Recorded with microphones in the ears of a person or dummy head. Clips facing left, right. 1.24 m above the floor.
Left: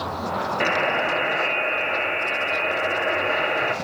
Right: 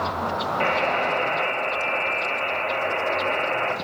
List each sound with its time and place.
0.6 s a buzzer: 15° left (ahead or behind), 2 m